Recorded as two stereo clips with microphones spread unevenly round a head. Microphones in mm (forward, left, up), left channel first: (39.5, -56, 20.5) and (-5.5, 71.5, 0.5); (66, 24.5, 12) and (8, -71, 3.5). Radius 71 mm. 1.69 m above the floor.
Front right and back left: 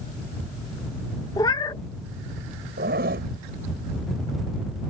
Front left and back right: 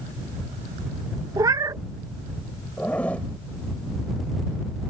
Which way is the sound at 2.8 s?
140° left.